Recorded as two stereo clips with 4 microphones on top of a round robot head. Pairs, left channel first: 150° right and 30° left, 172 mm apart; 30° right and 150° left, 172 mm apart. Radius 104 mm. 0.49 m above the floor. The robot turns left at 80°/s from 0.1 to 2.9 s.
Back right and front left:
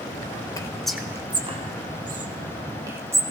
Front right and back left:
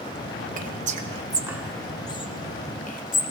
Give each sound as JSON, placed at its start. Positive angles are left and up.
{"t": 0.6, "sound": "whispering", "azimuth_deg": 150, "distance_m": 1.1}